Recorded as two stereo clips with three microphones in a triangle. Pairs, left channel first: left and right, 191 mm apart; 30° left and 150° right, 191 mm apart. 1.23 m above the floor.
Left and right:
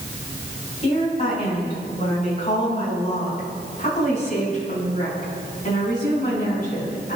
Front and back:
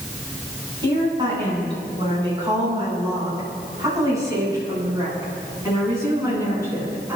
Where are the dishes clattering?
I don't hear dishes clattering.